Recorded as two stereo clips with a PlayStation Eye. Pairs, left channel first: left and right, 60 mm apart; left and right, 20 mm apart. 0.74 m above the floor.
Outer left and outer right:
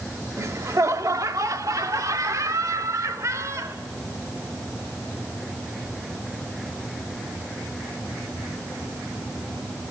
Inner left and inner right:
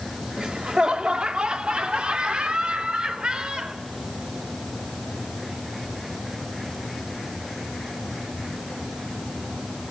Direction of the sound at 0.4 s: 55° right (ahead or behind).